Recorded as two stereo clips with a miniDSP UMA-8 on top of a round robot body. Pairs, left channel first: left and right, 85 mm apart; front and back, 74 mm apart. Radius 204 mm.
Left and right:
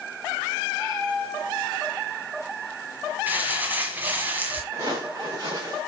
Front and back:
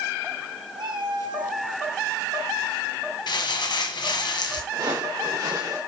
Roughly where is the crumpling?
Ahead.